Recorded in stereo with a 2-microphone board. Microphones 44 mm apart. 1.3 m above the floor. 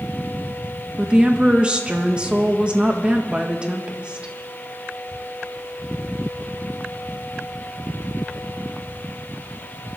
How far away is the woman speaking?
About 1.7 m.